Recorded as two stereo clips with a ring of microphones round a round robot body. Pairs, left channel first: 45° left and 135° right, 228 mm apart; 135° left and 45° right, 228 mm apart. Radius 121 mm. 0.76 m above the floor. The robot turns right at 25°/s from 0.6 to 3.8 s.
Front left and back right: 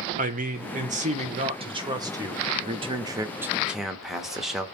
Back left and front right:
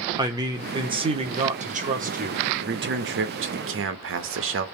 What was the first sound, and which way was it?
A man speaking, 110° right.